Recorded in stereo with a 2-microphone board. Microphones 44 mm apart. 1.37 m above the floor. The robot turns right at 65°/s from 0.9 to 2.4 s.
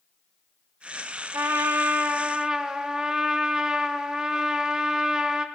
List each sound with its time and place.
1.3 s a trumpet: 85° right, 0.6 m; by 5.5 s 15° right, 0.6 m